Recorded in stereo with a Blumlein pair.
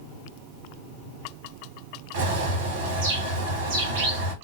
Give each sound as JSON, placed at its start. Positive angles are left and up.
{"t": 2.1, "sound": "a bird", "azimuth_deg": -55, "distance_m": 1.3}